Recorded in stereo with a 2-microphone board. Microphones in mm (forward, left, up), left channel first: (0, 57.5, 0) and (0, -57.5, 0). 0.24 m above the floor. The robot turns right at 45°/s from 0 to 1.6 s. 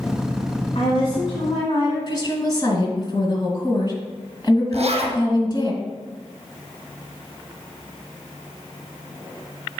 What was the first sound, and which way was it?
A woman speaking, 90° left.